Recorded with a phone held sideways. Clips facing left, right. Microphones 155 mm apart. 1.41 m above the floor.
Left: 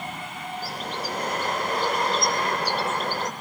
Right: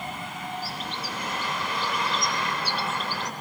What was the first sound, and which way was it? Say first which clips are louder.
A bird: left 3 dB; 45° left (ahead or behind).